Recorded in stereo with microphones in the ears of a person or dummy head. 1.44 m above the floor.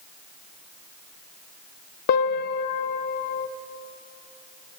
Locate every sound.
2.1 s a piano: 50° left (ahead or behind), 0.5 m